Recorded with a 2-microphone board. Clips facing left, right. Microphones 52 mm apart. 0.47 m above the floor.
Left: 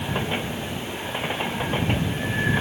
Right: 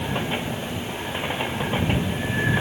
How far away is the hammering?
No hammering in this recording.